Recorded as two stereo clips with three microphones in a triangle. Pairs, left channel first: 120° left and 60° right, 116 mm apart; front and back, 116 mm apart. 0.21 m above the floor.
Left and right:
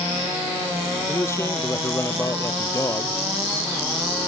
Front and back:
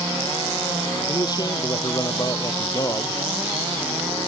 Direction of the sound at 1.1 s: 55° left.